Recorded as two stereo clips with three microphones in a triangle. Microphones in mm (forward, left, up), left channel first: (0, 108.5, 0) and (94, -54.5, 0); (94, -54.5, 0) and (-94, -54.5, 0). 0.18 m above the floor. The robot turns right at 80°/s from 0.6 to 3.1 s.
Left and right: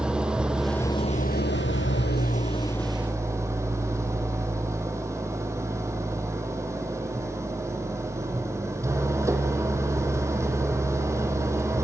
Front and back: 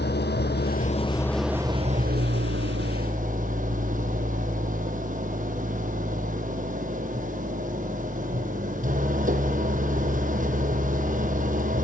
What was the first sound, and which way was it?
An engine running, 25° left.